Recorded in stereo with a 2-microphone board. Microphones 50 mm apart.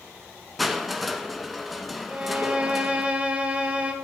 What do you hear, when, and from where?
0.6 s crushing: centre (ahead or behind), 1.2 m
2.1 s a violin: 25° right (ahead or behind), 1.5 m